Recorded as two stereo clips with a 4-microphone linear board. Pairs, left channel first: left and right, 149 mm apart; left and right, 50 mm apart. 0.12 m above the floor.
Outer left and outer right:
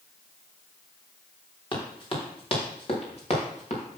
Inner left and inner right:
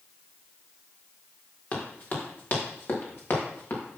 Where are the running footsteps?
35° left (ahead or behind), 5 m; by 4.0 s 50° left (ahead or behind), 4.5 m.